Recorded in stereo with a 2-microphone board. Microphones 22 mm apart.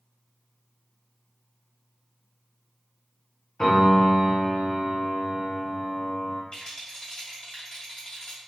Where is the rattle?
40° left (ahead or behind), 1.8 m.